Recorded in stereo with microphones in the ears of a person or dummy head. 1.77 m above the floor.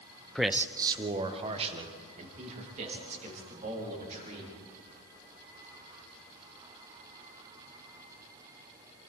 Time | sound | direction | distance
0.3 | a man speaking | 5° left (ahead or behind) | 0.6 m